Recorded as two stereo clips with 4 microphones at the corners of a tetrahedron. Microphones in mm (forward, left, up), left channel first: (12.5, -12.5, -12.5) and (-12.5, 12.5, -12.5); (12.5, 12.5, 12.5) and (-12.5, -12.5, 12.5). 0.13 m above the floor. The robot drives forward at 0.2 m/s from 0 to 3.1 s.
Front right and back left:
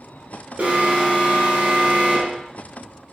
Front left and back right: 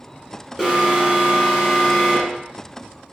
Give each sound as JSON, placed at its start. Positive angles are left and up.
{"t": 0.6, "sound": "an alarm", "azimuth_deg": 140, "distance_m": 1.0}